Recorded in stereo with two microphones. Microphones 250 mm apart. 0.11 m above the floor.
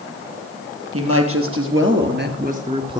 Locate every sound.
0.9 s a woman speaking: 65° right (ahead or behind), 3 m; by 3.0 s 15° right (ahead or behind), 1.5 m